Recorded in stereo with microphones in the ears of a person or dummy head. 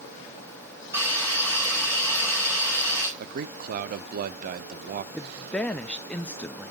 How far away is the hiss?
About 7 m.